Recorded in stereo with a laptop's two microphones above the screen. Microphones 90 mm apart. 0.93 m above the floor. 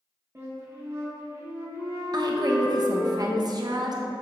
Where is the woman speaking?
50° right (ahead or behind), 0.6 m.